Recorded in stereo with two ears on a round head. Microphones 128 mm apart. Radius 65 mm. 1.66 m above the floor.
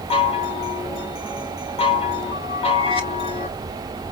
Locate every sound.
0.1 s a chime: 40° left (ahead or behind), 1.8 m